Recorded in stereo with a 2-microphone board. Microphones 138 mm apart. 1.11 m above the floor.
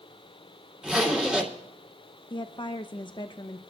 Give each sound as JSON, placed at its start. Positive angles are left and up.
{"t": 0.8, "sound": "a zipper", "side_deg": -5, "distance_m": 2.5}
{"t": 2.3, "sound": "a woman speaking", "side_deg": 35, "distance_m": 0.6}